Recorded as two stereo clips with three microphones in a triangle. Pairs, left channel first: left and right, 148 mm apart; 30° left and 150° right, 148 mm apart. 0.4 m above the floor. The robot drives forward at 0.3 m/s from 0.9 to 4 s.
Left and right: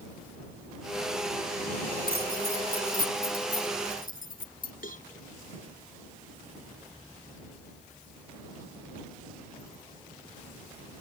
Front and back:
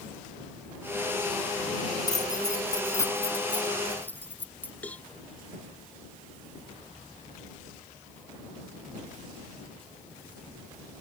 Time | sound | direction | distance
2.1 | keys jangling | 90° left | ?
4.8 | a cowbell | 110° left | ?